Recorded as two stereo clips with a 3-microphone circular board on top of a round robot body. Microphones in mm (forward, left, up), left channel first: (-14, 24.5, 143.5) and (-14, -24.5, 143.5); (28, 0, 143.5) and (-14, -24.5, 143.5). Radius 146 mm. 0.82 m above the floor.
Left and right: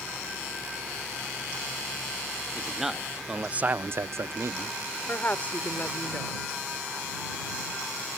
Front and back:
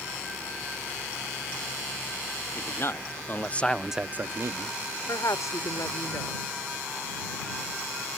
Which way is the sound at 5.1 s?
30° left.